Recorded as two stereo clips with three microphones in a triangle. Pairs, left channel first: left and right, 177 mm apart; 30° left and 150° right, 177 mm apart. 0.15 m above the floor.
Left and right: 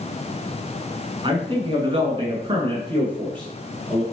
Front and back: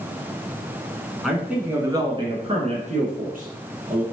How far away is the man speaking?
About 1.3 m.